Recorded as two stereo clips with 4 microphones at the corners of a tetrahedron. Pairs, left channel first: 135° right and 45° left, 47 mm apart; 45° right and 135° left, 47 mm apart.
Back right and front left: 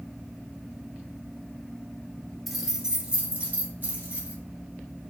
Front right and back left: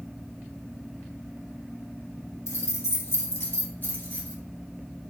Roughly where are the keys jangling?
Ahead right.